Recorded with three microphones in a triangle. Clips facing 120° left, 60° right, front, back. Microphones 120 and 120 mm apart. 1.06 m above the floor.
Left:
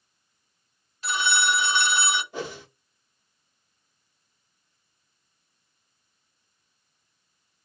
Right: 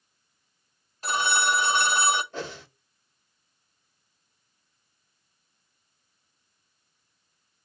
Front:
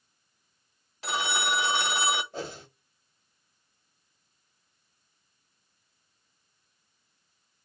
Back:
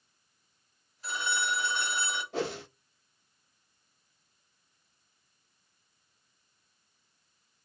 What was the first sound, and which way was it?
A phone ringing, 15° right.